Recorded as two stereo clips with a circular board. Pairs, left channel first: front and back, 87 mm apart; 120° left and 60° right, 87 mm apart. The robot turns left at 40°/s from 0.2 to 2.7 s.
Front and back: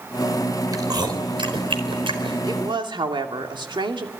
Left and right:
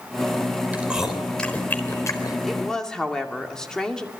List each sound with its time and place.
0.7 s chewing: 135° right, 4 m; by 2.4 s 160° left, 4 m
2.5 s a woman speaking: 150° right, 2.5 m; by 4.1 s 155° right, 2.5 m